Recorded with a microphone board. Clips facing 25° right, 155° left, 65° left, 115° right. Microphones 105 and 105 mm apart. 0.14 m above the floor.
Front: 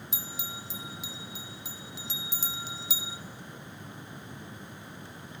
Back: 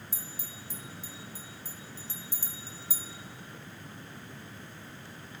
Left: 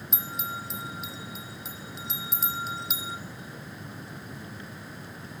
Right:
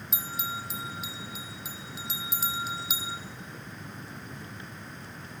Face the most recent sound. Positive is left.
turn(degrees=-25)